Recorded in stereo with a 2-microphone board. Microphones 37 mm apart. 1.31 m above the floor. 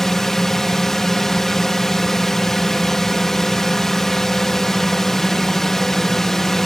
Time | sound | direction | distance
0.0 | a drone | 10° left (ahead or behind) | ?